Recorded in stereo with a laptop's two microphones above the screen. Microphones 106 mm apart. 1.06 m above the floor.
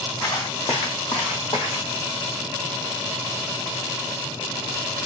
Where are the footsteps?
50° left (ahead or behind), 3 m; by 1.9 s 65° left (ahead or behind), 3 m.